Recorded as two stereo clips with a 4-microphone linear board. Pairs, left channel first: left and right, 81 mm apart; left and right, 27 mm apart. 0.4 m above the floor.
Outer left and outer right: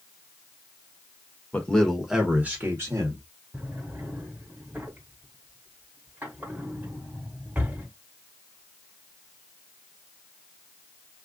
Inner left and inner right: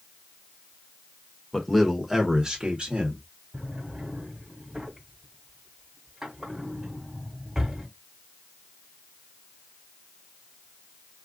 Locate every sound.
1.5 s a man speaking: 20° left (ahead or behind), 1.0 m; by 3.2 s 45° right (ahead or behind), 1.3 m
3.5 s a drawer: 20° right (ahead or behind), 1.4 m